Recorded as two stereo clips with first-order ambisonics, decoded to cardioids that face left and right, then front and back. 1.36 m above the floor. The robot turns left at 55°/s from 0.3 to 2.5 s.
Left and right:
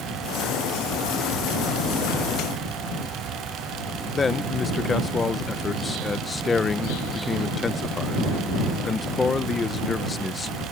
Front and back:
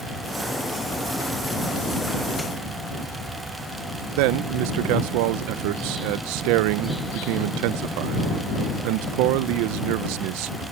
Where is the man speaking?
165° left.